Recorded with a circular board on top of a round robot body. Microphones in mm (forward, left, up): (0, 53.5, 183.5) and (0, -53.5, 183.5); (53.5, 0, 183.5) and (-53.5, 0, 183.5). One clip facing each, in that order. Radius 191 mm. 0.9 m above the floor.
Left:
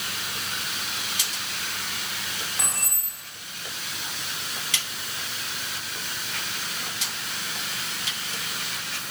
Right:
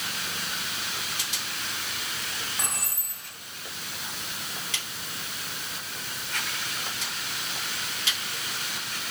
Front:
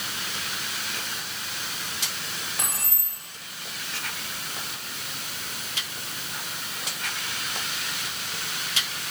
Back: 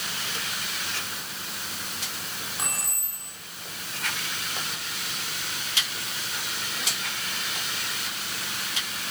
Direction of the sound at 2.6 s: Straight ahead.